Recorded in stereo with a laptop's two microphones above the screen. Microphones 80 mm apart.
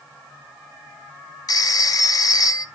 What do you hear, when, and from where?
1.5 s a phone ringing: 50° left (ahead or behind), 0.6 m